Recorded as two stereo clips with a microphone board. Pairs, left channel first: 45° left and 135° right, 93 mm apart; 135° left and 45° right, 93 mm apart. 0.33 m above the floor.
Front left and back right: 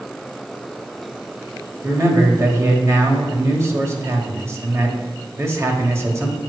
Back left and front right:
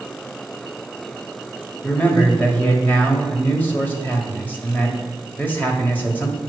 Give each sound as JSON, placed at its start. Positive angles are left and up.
{"t": 1.8, "sound": "a man speaking", "azimuth_deg": -165, "distance_m": 1.4}